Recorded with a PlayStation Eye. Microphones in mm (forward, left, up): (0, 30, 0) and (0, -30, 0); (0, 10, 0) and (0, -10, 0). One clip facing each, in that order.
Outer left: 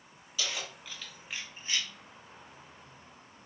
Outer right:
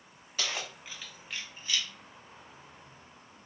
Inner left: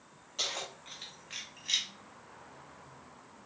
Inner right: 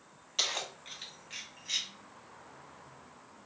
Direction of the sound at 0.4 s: 45° right (ahead or behind).